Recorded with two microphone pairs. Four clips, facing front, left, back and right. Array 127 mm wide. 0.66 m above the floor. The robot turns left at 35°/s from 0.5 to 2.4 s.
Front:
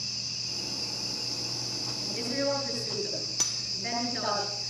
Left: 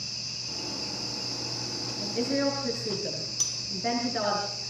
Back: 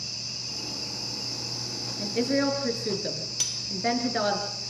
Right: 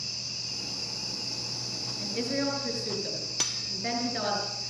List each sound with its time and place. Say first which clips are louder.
2.0 s a woman speaking: left 3 dB, back 7 dB; 175° right, 8.5 m; by 4.4 s 170° left, 8.5 m
3.4 s cutlery clinking: right 1 dB, back 3 dB; 65° right, 1.1 m